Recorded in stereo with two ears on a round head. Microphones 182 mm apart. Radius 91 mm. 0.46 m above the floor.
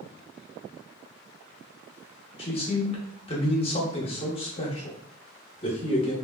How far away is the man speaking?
About 0.7 m.